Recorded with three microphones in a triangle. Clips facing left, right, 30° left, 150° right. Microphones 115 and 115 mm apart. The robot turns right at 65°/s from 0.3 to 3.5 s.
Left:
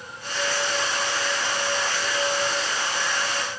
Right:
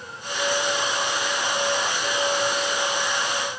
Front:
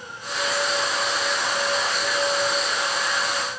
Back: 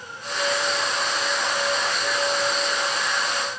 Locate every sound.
Only background noise.